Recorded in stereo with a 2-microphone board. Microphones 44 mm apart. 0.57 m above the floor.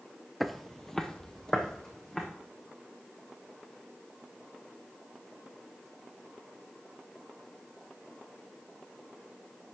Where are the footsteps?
Centre (ahead or behind), 0.5 m; by 2.2 s 15° left (ahead or behind), 2.5 m.